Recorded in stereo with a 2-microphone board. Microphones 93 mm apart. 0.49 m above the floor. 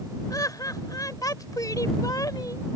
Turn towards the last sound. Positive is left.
turn(degrees=40)  # may be behind; listen again after turning